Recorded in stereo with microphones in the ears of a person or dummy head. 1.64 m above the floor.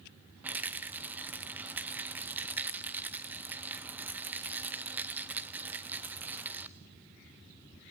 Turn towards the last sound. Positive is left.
turn(degrees=-10)  # may be behind; listen again after turning